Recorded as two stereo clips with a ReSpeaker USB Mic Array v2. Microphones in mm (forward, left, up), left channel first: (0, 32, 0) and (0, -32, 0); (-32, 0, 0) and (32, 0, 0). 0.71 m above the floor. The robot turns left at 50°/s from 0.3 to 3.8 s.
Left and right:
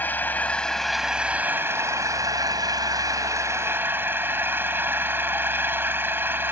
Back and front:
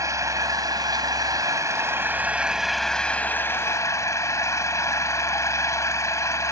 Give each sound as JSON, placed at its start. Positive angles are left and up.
{"t": 0.0, "sound": "an engine running", "azimuth_deg": 30}